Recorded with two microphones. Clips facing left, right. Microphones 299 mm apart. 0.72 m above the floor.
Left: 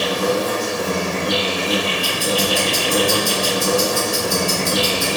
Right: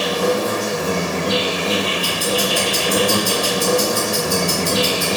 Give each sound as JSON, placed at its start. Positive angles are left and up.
{"t": 0.0, "sound": "an insect", "side_deg": -70, "distance_m": 1.8}
{"t": 2.0, "sound": "ticking", "side_deg": 5, "distance_m": 1.9}